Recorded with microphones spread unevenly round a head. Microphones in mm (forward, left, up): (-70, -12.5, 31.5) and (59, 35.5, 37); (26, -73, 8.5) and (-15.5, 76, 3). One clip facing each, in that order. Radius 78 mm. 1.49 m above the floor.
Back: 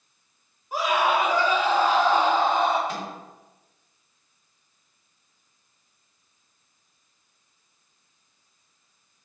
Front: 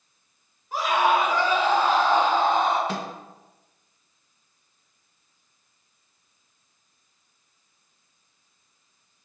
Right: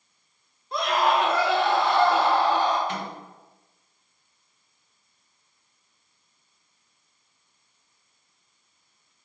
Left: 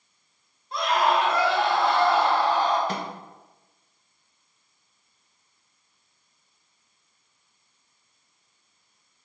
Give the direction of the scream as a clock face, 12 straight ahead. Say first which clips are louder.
Front 1 dB, even; 3 o'clock.